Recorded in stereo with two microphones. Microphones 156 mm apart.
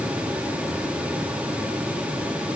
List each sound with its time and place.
Only background noise.